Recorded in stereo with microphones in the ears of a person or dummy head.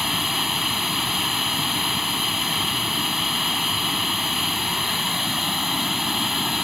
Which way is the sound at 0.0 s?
5° right (ahead or behind).